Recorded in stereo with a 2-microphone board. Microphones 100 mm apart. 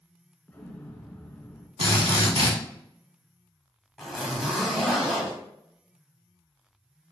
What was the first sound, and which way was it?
An explosion, 15° left (ahead or behind).